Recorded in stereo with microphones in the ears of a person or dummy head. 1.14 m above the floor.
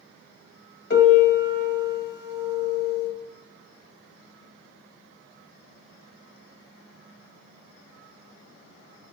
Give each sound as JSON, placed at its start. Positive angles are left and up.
{"t": 0.9, "sound": "a piano", "side_deg": 50, "distance_m": 0.9}